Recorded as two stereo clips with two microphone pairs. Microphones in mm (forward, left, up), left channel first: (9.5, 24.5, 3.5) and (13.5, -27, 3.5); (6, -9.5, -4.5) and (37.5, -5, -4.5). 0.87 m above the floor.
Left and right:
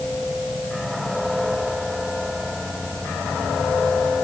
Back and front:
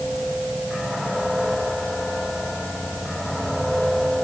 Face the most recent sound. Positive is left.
No sound to turn to.